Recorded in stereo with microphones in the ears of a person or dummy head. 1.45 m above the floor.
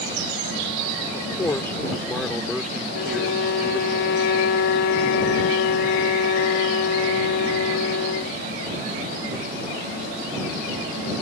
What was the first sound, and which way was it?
A man speaking, 10° left (ahead or behind).